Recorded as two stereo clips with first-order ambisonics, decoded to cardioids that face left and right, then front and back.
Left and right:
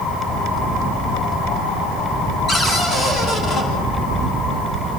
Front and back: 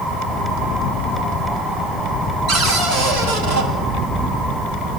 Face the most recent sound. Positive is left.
turn(degrees=150)